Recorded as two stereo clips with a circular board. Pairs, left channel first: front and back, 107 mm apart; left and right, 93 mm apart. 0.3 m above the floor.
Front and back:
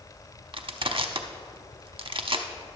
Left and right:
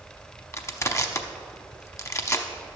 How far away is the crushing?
About 0.7 m.